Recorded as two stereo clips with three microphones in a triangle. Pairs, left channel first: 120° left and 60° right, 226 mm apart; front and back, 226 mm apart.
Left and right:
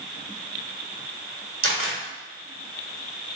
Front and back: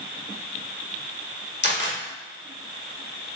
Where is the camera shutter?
40° right, 1.3 m.